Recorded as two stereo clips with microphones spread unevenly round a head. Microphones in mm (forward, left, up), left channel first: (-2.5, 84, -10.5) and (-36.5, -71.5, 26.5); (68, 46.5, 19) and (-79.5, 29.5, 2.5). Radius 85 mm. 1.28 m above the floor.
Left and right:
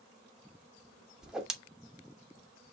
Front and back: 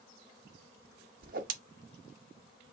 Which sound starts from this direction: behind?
A whoosh, at 1.2 s.